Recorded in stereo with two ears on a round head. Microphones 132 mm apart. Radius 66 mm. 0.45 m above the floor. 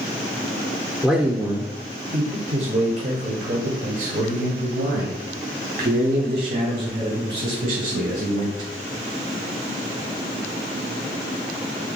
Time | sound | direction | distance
1.0 | a man speaking | 5° right (ahead or behind) | 0.9 m